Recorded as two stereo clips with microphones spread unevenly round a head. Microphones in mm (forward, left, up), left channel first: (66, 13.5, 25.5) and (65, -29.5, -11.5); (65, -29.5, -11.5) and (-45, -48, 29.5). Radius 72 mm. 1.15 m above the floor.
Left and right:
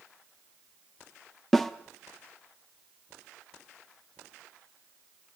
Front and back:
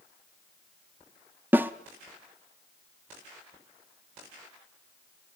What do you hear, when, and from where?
1.5 s a snare drum: 135° left, 0.8 m